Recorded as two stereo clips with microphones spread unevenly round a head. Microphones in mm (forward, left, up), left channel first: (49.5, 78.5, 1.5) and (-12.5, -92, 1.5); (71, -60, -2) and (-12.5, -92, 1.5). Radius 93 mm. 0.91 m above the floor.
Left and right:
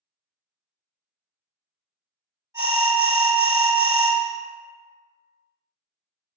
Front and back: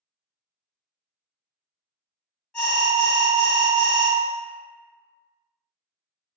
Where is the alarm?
50° right, 1.8 m.